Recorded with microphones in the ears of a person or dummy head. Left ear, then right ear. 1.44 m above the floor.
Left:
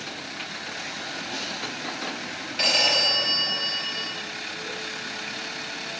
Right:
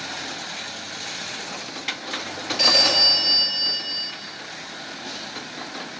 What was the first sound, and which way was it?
A phone ringing, 10° right (ahead or behind).